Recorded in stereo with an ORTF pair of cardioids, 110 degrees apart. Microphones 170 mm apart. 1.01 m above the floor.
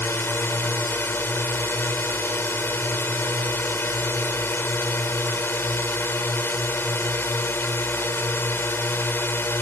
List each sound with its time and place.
0.0 s a drone: 15° left